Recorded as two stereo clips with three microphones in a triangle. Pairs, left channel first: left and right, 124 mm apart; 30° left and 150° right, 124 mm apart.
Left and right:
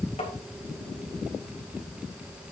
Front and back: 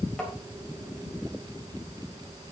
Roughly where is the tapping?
Behind left.